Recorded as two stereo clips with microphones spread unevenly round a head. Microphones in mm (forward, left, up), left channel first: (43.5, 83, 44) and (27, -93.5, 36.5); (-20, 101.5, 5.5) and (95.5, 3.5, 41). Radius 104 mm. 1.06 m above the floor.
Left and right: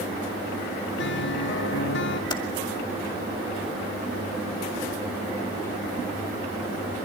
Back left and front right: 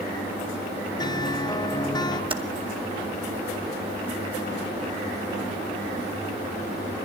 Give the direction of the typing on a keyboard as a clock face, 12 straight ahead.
11 o'clock.